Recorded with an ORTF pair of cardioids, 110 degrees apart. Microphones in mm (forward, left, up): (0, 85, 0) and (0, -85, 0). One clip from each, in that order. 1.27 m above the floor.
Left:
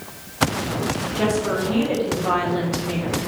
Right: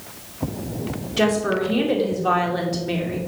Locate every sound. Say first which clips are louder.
1.2 s a woman speaking: right 3 dB; 15° right, 2.5 m